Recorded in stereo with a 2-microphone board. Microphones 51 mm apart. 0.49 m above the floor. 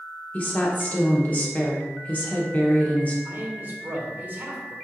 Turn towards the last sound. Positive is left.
turn(degrees=-45)  # may be behind; listen again after turning